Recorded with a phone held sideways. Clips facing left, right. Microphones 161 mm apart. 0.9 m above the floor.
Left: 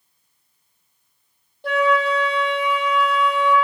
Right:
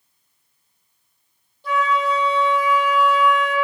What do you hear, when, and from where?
1.6 s a flute: 65° left (ahead or behind), 1.7 m